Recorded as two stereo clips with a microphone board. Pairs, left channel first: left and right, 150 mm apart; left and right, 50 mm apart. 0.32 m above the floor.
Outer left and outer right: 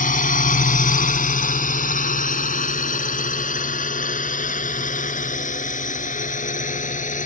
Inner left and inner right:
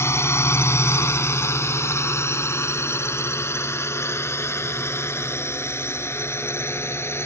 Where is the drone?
65° left (ahead or behind); by 7.2 s 60° left (ahead or behind).